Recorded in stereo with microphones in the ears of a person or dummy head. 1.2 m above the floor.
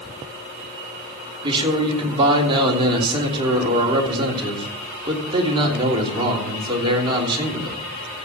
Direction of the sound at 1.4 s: 30° right (ahead or behind).